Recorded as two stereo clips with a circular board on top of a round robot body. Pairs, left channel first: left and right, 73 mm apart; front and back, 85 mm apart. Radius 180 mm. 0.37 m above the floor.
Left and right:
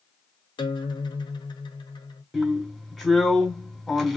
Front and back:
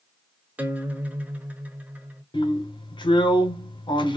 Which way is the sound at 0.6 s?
105° left.